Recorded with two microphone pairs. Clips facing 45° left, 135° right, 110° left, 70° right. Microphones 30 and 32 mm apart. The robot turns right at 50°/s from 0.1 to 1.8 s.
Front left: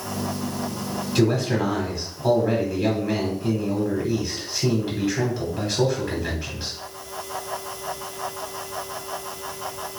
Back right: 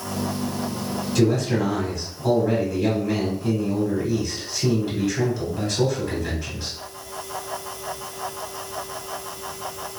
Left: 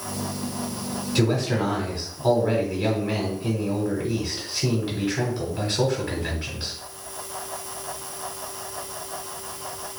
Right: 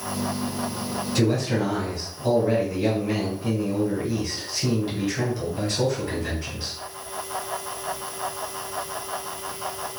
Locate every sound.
1.1 s a man speaking: 60° left, 1.1 m; by 6.7 s 90° left, 1.1 m